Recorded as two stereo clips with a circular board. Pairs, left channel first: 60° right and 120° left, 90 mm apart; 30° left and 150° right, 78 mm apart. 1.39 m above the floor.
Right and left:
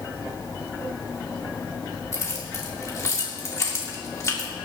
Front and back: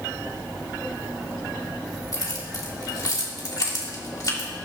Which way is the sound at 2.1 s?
10° right.